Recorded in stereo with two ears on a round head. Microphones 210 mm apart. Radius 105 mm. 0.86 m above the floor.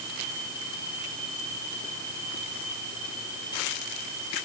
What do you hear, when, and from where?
Only background noise.